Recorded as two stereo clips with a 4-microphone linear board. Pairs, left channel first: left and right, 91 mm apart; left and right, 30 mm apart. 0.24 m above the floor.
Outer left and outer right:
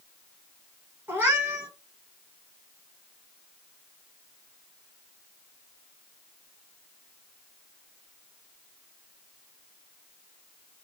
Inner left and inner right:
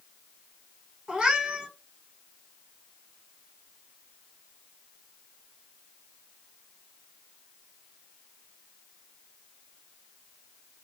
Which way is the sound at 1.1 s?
25° right (ahead or behind).